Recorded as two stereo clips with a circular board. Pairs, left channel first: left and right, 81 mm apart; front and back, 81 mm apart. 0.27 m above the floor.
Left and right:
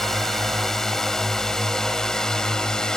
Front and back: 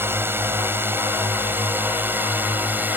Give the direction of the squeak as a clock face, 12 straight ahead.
No squeak in this recording.